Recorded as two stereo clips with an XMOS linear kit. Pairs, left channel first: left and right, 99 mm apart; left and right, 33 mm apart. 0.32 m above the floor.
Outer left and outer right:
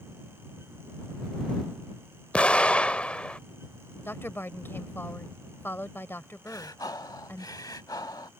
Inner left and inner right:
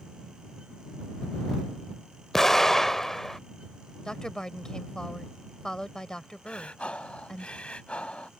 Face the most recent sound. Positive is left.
turn(degrees=40)  # may be behind; listen again after turning